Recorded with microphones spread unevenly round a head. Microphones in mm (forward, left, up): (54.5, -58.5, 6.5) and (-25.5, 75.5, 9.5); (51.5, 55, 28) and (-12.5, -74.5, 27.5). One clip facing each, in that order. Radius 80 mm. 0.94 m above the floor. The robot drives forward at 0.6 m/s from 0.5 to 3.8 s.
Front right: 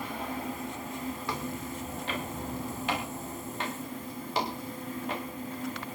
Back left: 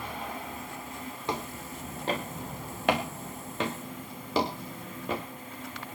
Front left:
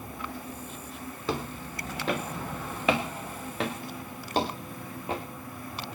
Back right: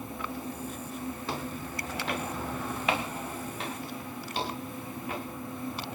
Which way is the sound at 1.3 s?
50° left.